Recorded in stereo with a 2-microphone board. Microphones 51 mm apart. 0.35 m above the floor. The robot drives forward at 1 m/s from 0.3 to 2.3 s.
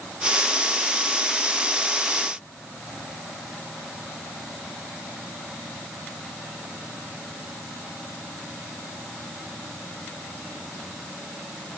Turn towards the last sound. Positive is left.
No sound to turn to.